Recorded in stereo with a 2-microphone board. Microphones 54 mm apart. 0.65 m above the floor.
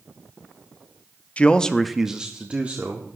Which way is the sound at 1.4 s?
25° left (ahead or behind).